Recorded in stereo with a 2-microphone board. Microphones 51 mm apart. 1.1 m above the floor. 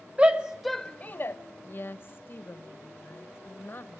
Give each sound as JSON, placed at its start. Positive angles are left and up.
{"t": 0.2, "sound": "a shout", "side_deg": -25, "distance_m": 1.2}
{"t": 1.6, "sound": "a woman speaking", "side_deg": 45, "distance_m": 1.1}